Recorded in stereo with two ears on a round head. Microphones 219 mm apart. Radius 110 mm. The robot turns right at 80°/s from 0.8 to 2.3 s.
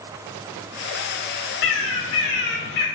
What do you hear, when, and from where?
1.6 s a bird: 60° left, 0.7 m; by 2.9 s 115° left, 0.7 m